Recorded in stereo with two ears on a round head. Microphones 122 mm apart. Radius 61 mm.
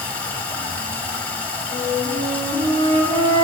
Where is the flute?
60° right (ahead or behind), 4.5 m.